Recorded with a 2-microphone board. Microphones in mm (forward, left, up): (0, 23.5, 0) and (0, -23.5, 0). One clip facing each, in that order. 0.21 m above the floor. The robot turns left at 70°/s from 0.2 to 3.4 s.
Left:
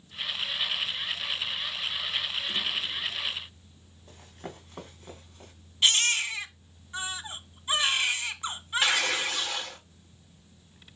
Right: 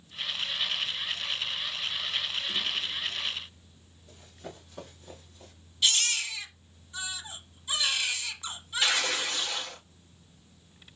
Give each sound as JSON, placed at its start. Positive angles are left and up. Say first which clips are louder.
{"t": 4.1, "sound": "running footsteps", "louder": "left 2 dB", "side_deg": 50, "distance_m": 3.0}
{"t": 5.8, "sound": "a baby crying", "louder": "left 3 dB", "side_deg": 40, "distance_m": 1.2}
{"t": 8.8, "sound": "tearing paper", "louder": "left 1 dB", "side_deg": 25, "distance_m": 4.5}